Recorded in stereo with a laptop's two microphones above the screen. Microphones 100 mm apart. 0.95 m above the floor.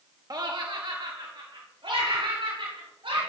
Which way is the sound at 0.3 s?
40° right (ahead or behind).